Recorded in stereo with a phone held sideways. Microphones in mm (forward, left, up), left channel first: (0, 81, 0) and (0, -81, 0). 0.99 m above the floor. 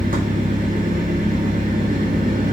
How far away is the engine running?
About 1.7 m.